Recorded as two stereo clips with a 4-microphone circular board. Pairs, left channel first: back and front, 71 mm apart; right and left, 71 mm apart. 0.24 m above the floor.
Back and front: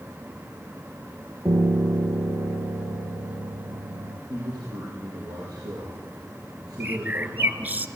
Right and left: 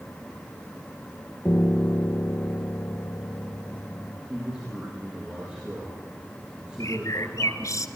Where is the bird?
60° right, 1.1 m.